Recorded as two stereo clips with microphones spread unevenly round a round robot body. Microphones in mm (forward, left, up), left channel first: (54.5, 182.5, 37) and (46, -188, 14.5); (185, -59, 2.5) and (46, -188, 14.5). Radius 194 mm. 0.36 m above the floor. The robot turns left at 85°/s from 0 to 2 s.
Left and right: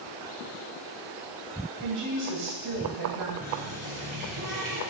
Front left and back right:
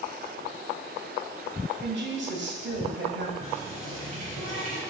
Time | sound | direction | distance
1.8 | a woman speaking | 110° right | 1.8 m
3.4 | a running tap | 160° right | 4 m